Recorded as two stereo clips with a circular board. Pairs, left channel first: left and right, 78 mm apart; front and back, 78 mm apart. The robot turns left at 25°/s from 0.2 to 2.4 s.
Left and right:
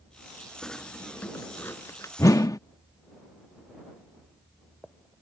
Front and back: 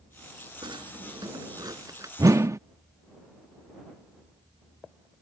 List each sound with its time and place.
0.6 s a drawer: 175° left; by 2.1 s 140° left
2.2 s a whoosh: 140° left; by 2.6 s 130° left